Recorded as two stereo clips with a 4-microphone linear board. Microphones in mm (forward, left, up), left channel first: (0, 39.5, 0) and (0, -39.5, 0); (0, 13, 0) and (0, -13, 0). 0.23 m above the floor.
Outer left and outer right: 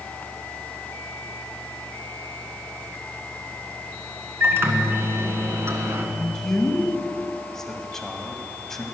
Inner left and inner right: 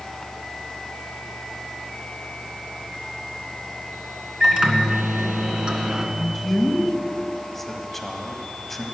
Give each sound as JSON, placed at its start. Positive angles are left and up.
{"t": 4.4, "sound": "a microwave", "side_deg": -35, "distance_m": 1.9}
{"t": 6.2, "sound": "a man speaking", "side_deg": 5, "distance_m": 1.7}